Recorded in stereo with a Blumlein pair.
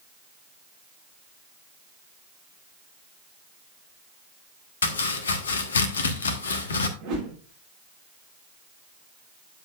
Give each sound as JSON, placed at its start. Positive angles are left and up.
{"t": 4.8, "sound": "chopping", "azimuth_deg": 65, "distance_m": 1.2}
{"t": 7.0, "sound": "a whoosh", "azimuth_deg": -45, "distance_m": 3.0}